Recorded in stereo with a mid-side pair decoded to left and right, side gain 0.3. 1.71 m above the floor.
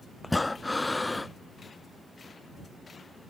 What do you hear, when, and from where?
0.2 s breathing: 20° left